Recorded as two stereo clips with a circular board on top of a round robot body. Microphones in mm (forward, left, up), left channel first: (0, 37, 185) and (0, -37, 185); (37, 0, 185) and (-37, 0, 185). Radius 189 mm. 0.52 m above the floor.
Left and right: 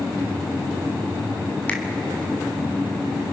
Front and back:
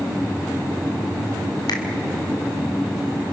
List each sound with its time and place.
1.7 s a finger snap: 20° left, 2 m